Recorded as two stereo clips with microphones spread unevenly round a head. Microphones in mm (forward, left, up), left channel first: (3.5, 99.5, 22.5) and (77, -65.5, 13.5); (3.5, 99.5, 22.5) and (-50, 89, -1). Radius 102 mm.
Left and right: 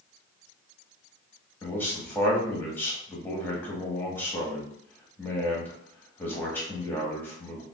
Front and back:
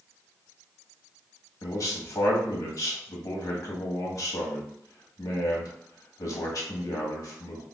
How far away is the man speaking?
About 1.2 m.